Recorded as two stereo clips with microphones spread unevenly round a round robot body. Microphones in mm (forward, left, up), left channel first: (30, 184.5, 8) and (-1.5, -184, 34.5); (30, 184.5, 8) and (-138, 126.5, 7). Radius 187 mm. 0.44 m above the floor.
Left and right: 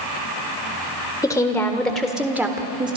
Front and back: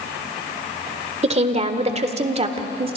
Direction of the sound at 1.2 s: 160° left.